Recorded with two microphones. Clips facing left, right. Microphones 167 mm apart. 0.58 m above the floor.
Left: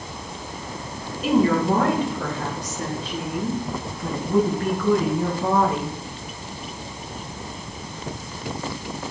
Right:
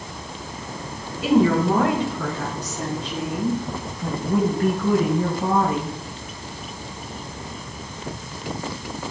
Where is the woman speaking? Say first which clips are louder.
Right 1 dB; 80° right, 5.5 m; by 5.9 s 55° right (ahead or behind), 4 m.